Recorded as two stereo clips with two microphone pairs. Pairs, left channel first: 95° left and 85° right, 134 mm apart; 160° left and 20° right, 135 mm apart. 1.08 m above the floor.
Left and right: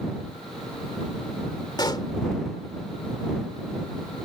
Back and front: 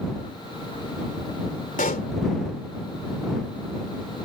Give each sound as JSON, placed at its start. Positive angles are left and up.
{"t": 1.8, "sound": "a pop", "azimuth_deg": 150}